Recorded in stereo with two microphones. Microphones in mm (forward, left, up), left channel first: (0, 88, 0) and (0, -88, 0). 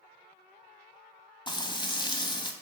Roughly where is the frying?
Left.